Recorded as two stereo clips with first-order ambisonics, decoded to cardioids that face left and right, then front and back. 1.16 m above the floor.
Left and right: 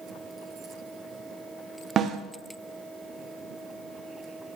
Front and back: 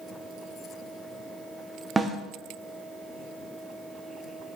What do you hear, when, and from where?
2.0 s a snare drum: 115° right, 0.6 m